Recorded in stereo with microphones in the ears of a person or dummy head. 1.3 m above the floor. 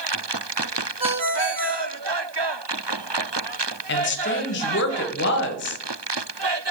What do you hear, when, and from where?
1.0 s a ringtone: 35° right (ahead or behind), 1.6 m
3.9 s a woman speaking: 55° left (ahead or behind), 0.8 m